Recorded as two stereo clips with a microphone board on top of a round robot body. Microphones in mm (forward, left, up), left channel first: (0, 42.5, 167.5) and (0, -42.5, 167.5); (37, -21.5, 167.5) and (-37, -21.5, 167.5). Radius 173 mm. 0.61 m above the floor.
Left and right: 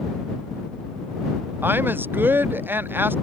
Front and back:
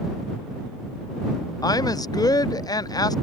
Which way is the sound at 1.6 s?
25° right.